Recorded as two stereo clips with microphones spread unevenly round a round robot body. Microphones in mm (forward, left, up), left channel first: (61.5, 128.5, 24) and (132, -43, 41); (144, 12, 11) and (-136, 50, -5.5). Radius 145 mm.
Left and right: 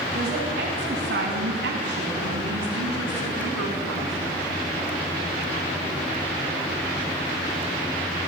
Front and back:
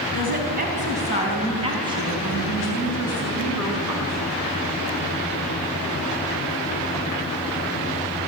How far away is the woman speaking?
About 4 m.